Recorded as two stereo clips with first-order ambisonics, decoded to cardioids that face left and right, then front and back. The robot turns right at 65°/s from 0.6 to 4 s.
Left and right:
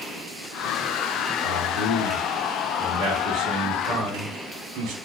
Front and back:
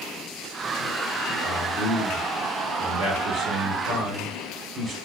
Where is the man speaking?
75° left, 1.1 m; by 4.9 s 115° right, 1.1 m.